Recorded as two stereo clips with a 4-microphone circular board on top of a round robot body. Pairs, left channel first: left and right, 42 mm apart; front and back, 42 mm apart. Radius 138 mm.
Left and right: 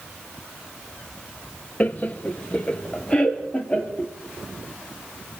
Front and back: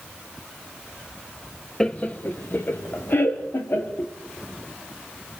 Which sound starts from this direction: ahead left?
Laughter, at 1.8 s.